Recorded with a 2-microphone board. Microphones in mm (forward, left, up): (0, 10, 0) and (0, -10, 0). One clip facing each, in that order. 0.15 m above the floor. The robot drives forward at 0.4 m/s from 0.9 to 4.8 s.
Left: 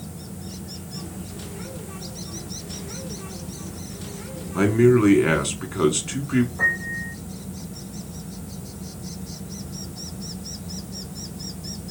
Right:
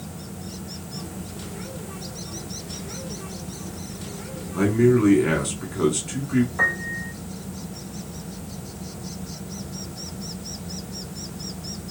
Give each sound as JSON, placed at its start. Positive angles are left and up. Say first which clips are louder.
{"t": 4.5, "sound": "a man speaking", "louder": "left 2 dB", "side_deg": 30, "distance_m": 1.4}
{"t": 6.6, "sound": "a piano", "louder": "even", "side_deg": -70, "distance_m": 1.6}